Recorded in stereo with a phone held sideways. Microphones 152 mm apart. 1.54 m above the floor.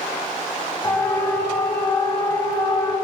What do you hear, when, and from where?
0.8 s a siren: 20° left (ahead or behind), 8.5 m; by 2.9 s 30° left (ahead or behind), 11 m